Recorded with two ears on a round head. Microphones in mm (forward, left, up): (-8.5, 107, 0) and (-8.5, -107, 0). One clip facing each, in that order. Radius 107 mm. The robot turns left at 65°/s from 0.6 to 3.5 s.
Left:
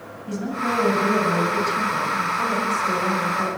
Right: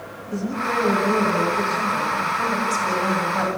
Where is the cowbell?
No cowbell in this recording.